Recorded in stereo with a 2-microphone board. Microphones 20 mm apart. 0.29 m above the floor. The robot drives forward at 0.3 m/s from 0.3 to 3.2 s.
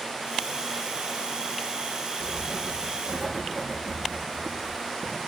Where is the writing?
20° right (ahead or behind), 5.5 m.